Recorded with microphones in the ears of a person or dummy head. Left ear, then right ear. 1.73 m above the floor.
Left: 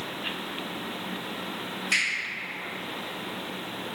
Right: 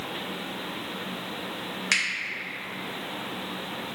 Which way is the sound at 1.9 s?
60° right (ahead or behind).